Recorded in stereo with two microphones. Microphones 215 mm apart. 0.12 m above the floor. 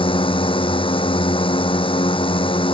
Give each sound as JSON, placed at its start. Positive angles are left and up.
{"t": 0.0, "sound": "a drone", "side_deg": 25}